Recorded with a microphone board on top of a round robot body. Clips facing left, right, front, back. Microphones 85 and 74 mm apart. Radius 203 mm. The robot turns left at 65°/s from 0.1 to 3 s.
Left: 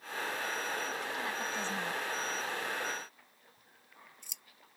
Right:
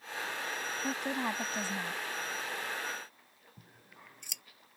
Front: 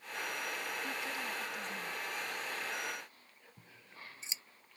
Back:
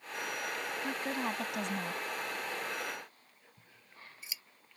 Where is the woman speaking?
115° right; by 2.0 s 170° left.